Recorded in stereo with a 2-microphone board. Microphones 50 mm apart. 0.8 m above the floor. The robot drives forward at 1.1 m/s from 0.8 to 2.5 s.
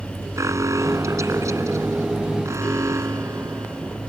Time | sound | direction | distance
0.4 | an alarm | 80° right | ?